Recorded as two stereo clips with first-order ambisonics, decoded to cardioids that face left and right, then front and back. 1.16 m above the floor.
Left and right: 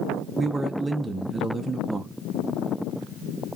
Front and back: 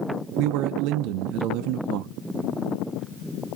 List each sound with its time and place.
0.4 s a man speaking: 170° right, 0.6 m